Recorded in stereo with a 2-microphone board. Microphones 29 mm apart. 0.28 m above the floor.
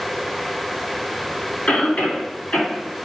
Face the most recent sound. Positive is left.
turn(degrees=40)  # may be behind; listen again after turning